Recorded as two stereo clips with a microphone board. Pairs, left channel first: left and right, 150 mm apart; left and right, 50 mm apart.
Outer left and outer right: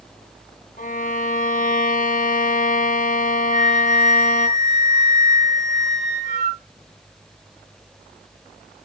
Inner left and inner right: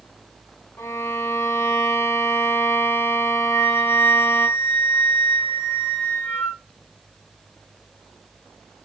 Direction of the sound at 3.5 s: 50° left (ahead or behind).